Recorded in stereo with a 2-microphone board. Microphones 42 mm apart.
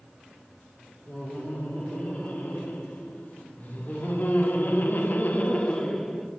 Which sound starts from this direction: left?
Laughter, at 1.1 s.